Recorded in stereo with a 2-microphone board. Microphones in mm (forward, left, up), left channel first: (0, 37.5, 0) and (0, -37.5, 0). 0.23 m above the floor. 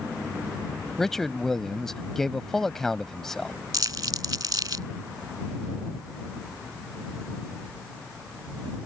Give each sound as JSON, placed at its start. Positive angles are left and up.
{"t": 1.0, "sound": "a man speaking", "side_deg": 5}
{"t": 3.7, "sound": "crumpling", "side_deg": -70}